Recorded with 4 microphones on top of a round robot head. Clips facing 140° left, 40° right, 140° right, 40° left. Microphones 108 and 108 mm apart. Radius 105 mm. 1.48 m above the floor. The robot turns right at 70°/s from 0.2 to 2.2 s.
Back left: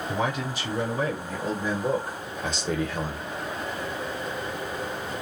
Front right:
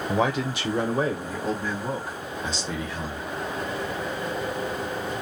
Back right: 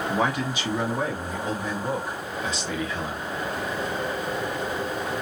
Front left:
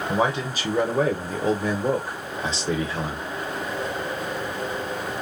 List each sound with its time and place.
0.1 s a man speaking: 35° right, 0.7 m; by 3.2 s 105° left, 0.7 m